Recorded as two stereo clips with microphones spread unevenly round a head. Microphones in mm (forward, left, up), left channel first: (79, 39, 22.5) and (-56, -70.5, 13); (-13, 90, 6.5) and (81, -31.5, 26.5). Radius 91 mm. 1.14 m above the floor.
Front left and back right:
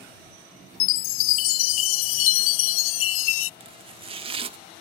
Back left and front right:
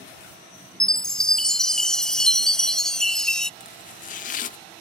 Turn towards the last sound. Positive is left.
turn(degrees=160)